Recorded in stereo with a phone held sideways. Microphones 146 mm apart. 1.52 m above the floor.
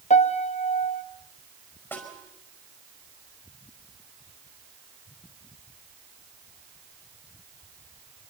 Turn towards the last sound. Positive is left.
turn(degrees=15)  # may be behind; listen again after turning